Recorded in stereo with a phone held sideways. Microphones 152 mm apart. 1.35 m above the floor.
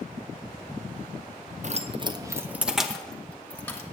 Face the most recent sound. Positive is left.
turn(degrees=15)  # may be behind; listen again after turning